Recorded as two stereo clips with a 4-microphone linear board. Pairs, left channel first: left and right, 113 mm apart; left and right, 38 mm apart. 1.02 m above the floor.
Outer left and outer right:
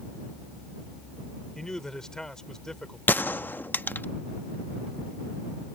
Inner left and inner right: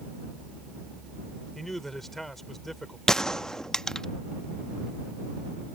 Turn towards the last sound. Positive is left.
turn(degrees=15)  # may be behind; listen again after turning